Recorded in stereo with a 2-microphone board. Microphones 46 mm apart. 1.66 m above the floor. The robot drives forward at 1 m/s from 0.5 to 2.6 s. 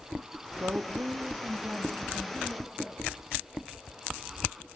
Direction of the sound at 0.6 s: 55° right (ahead or behind).